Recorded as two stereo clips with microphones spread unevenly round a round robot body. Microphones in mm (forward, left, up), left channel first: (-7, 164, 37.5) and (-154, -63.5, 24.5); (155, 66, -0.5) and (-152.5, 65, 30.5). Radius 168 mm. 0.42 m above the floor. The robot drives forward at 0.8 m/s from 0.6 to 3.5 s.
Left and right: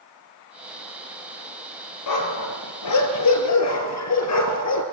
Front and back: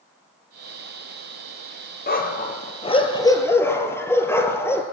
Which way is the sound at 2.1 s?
60° left.